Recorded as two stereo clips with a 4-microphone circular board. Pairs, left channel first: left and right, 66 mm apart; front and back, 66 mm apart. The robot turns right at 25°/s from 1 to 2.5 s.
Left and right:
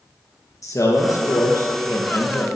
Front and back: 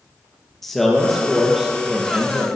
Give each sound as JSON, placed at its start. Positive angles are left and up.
{"t": 0.6, "sound": "a man speaking", "azimuth_deg": 85, "distance_m": 3.0}